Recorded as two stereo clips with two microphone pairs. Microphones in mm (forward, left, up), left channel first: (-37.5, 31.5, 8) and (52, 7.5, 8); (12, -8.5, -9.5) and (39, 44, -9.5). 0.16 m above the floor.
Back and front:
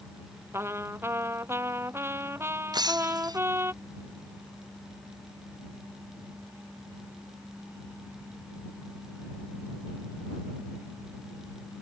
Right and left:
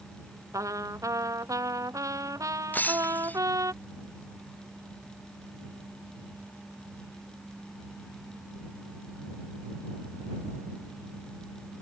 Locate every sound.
0.5 s a trumpet: 50° left
2.7 s breaking glass: 60° right